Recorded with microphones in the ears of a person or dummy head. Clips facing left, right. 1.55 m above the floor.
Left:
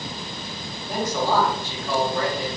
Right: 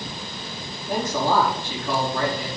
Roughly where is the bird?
No bird in this recording.